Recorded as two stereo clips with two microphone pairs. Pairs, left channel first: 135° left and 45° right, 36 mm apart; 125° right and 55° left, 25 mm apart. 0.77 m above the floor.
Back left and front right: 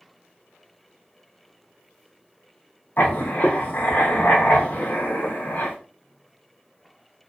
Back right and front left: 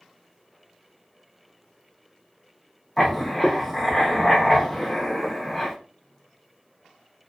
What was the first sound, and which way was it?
Writing, 155° left.